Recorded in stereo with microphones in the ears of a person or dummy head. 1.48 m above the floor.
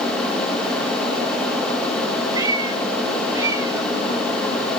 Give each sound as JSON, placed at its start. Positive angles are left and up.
{"t": 2.3, "sound": "a cat meowing", "side_deg": -20, "distance_m": 6.0}